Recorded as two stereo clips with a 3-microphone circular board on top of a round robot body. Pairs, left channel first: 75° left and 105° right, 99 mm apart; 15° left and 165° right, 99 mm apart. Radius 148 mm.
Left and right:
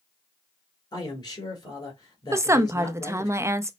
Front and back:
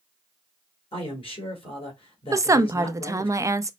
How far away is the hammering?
I don't hear hammering.